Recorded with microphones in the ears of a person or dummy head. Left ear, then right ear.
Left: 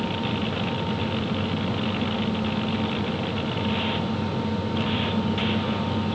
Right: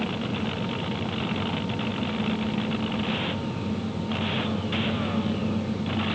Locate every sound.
Only background noise.